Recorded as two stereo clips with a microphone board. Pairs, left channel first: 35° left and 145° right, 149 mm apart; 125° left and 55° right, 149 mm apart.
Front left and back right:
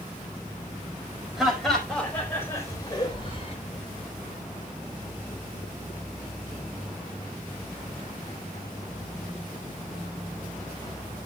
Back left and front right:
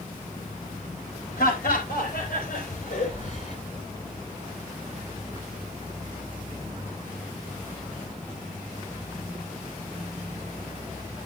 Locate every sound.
1.4 s laughter: 125° left, 5 m; by 3.6 s 80° left, 3.5 m